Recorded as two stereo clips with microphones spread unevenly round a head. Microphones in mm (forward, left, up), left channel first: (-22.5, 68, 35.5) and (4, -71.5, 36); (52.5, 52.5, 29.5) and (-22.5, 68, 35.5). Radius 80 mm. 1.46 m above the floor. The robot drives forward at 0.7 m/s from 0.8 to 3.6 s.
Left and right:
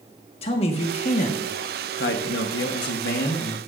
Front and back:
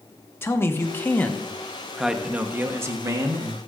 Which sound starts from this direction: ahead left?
A man speaking, at 0.4 s.